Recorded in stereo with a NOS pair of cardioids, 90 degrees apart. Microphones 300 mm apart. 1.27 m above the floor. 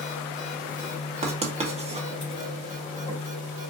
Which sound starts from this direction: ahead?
Writing, at 1.2 s.